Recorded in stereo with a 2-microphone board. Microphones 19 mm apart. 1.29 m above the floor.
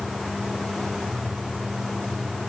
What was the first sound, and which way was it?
Only background noise.